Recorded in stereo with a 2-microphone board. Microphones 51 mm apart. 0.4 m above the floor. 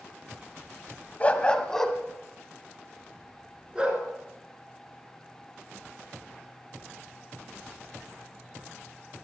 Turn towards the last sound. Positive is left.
turn(degrees=-20)  # may be behind; listen again after turning